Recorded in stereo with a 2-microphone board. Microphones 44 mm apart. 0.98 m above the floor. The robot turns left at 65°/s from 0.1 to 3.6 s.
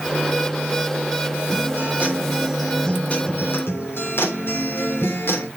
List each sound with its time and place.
1.5 s a guitar: 110° right, 3.5 m; by 5.5 s 115° left, 3.5 m